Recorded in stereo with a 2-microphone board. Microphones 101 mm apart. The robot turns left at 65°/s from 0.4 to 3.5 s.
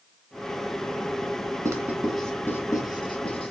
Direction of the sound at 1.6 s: 30° right (ahead or behind).